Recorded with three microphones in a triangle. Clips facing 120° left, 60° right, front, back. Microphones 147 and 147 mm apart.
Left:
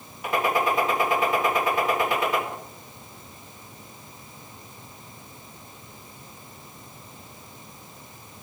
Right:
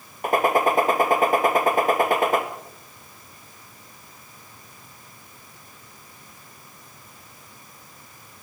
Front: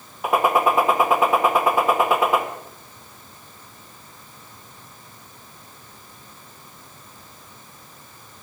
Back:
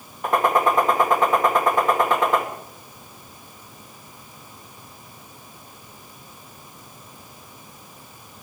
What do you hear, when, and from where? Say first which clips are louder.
0.2 s a gunshot: right 4 dB, front 1 dB; 80° right, 1.3 m